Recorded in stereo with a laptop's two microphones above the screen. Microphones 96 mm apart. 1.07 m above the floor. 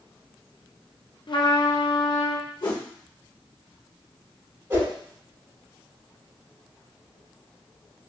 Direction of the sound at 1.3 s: 55° left (ahead or behind).